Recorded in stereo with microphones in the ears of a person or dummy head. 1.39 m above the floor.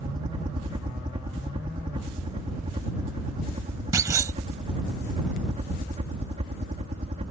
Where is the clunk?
15° right (ahead or behind).